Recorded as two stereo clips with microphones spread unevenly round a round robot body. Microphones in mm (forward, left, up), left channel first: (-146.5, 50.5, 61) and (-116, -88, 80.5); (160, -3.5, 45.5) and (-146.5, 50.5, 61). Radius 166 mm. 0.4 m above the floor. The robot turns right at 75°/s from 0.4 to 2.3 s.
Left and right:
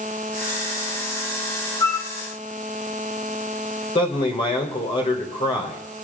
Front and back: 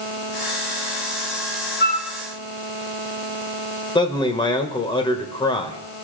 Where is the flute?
45° left, 1.1 m; by 2.1 s 65° left, 1.1 m.